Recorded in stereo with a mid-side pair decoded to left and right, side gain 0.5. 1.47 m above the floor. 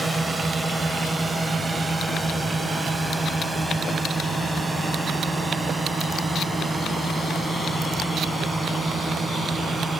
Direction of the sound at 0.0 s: 15° right.